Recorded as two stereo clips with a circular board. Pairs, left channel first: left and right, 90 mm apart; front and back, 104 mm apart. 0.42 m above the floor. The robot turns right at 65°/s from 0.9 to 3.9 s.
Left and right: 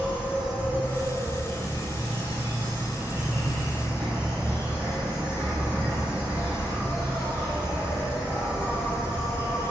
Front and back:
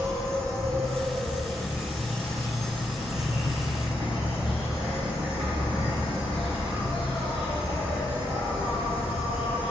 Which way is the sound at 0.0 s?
165° right.